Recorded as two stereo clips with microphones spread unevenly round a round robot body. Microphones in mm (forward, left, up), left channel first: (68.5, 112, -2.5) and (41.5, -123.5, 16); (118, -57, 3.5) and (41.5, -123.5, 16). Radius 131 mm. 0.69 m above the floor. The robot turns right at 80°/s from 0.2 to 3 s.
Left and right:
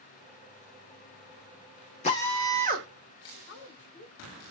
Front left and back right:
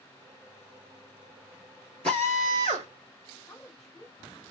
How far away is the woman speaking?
About 1.4 m.